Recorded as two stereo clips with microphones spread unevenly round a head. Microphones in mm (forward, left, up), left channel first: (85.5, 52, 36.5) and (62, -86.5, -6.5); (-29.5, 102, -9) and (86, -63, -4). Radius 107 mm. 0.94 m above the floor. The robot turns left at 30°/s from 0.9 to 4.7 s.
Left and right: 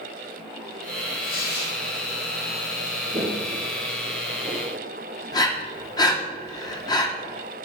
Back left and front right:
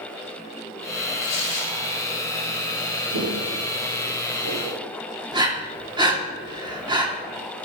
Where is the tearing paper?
140° left, 2.5 m; by 1.8 s 120° left, 2.5 m.